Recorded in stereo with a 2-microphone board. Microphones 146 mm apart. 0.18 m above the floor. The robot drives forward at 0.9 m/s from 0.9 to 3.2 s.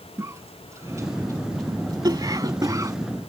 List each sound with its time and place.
0.2 s a cough: 20° right (ahead or behind)